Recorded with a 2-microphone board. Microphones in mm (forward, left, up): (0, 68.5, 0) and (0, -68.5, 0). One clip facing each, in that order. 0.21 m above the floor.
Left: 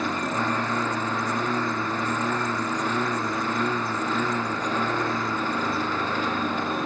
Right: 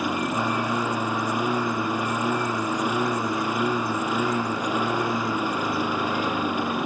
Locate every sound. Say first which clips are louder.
0.0 s a lawn mower: right 1 dB; 10° right (ahead or behind)